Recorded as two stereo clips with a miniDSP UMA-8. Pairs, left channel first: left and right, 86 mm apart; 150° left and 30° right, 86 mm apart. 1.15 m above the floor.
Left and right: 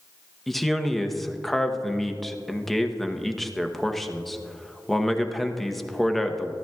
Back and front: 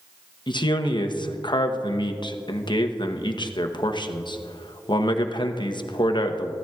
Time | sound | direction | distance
0.5 | a man speaking | straight behind | 0.8 m